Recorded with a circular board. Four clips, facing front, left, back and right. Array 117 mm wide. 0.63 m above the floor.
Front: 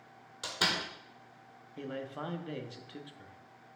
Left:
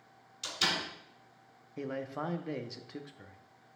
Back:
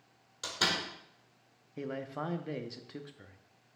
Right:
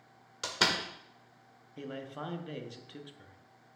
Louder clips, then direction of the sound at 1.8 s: Left 4 dB, back 2 dB; 125° left.